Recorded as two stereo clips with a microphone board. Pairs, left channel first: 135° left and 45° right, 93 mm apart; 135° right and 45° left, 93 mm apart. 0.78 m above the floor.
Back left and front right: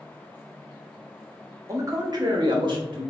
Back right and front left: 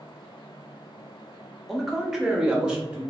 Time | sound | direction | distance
1.7 | a man speaking | 45° right | 0.6 m